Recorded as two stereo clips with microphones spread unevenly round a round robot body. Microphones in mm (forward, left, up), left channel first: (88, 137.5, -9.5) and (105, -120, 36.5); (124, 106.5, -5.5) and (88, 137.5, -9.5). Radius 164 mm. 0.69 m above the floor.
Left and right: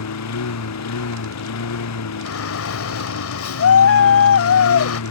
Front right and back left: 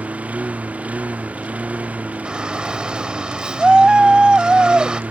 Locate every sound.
0.0 s a lawn mower: 80° left
2.2 s a shout: 65° left